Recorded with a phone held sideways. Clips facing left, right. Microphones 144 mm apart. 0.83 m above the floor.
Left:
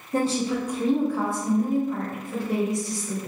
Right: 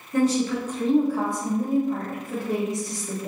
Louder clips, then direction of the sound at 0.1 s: Right 2 dB; 35° left (ahead or behind).